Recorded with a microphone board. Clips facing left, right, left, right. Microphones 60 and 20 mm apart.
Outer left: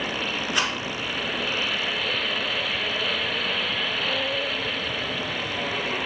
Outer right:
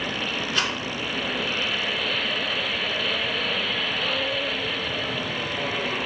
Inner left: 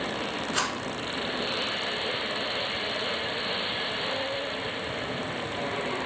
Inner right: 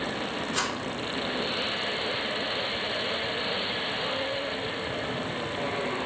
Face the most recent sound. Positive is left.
turn(degrees=15)  # may be behind; listen again after turning